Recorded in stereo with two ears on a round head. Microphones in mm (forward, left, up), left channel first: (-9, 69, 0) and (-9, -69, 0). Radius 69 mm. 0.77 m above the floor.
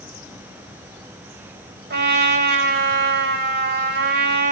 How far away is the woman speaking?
No woman speaking in this recording.